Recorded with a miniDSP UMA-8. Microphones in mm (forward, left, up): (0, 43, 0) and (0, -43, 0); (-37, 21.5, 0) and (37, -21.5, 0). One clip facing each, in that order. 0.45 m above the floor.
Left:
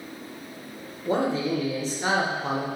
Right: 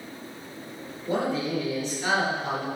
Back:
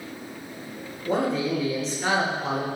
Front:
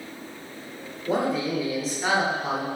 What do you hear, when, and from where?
1.1 s a man speaking: 55° left, 1.0 m